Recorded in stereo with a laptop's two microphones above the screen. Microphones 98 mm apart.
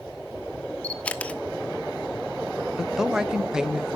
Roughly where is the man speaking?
Centre.